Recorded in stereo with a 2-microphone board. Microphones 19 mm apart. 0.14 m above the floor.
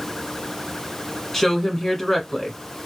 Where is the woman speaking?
20° left (ahead or behind), 1.1 m.